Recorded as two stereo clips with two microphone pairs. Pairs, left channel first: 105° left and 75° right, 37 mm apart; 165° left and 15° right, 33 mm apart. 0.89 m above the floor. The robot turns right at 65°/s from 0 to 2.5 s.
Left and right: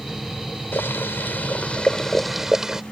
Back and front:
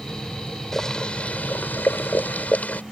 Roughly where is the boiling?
Left.